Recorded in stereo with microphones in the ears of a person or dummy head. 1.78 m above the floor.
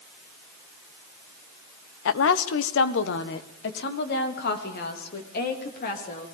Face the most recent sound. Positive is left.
turn(degrees=50)  # may be behind; listen again after turning